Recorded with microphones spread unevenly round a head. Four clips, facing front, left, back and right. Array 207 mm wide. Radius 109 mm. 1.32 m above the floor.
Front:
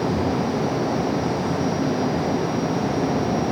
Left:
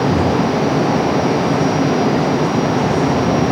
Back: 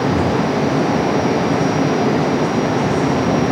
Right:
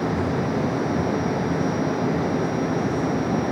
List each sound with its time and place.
Only background noise.